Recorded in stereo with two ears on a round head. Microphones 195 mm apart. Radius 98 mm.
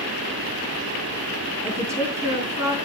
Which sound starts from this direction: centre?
A woman speaking, at 1.6 s.